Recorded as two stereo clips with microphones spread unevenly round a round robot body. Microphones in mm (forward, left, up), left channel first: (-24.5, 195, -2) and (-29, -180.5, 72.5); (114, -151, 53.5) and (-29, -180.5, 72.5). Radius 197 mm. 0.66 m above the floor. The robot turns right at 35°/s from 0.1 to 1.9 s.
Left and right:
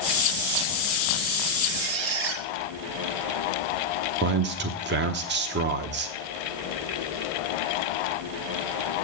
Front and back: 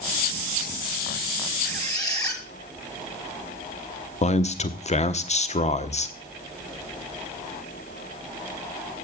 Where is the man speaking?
25° right, 1.2 m.